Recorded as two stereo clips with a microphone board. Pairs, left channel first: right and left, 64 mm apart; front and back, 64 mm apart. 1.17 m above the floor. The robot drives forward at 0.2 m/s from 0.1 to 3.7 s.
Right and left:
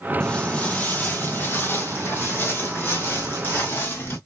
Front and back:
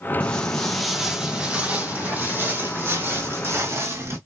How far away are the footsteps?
About 1.2 m.